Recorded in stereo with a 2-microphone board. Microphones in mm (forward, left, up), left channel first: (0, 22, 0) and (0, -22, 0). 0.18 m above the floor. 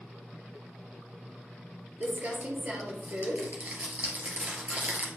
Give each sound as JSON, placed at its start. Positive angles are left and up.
{"t": 2.0, "sound": "crumpling", "side_deg": -35, "distance_m": 2.0}